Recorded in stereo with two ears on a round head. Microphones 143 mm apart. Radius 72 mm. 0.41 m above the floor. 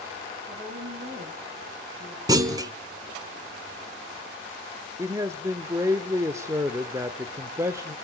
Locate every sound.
0.5 s a woman speaking: 40° right (ahead or behind), 8 m; by 2.2 s 25° right (ahead or behind), 8.5 m
2.3 s a clunk: 20° right (ahead or behind), 0.9 m
5.0 s a man speaking: 15° right (ahead or behind), 0.8 m